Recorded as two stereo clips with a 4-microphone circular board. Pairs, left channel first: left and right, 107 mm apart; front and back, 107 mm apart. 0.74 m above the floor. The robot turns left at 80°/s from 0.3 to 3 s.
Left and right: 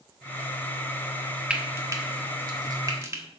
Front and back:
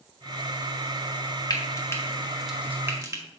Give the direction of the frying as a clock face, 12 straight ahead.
1 o'clock.